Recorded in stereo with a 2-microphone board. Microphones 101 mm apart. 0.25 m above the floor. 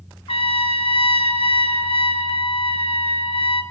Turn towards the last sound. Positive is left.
turn(degrees=75)  # may be behind; listen again after turning